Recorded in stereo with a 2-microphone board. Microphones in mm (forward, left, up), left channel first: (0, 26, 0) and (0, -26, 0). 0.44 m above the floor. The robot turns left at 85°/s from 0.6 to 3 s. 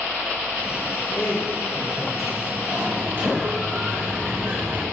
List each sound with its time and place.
1.1 s a man speaking: 95° left, 1.8 m; by 2.6 s 35° right, 1.8 m
2.7 s a sliding door: 70° right (ahead or behind), 4.5 m; by 4.8 s 45° right (ahead or behind), 4.5 m